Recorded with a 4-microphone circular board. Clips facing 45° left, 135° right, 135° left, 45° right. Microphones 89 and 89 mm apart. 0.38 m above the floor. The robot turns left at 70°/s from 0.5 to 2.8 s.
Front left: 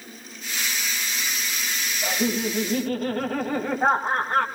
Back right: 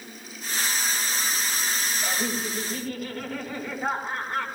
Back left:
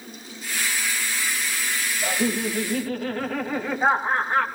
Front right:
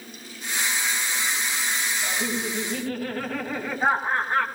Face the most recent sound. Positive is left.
turn(degrees=50)